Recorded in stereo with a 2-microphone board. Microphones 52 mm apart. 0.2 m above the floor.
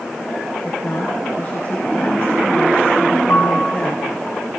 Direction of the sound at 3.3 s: 50° left (ahead or behind).